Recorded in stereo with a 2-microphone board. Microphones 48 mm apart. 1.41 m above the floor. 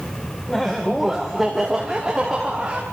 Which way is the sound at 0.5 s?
10° left (ahead or behind).